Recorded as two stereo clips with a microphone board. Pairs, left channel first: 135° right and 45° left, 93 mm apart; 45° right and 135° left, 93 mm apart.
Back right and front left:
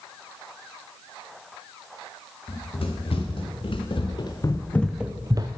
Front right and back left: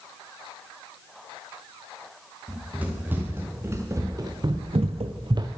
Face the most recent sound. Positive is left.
turn(degrees=90)